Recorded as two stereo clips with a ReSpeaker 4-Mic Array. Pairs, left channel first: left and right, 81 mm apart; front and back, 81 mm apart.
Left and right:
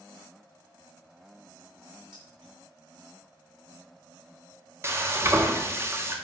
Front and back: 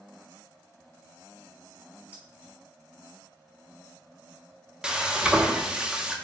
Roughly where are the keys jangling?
Right.